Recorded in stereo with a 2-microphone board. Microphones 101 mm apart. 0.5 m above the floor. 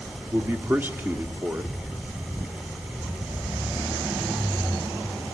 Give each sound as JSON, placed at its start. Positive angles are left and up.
{"t": 0.3, "sound": "a man speaking", "side_deg": -20, "distance_m": 0.8}